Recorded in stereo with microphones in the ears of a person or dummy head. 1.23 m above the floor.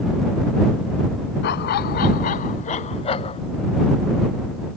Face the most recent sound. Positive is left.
turn(degrees=25)  # may be behind; listen again after turning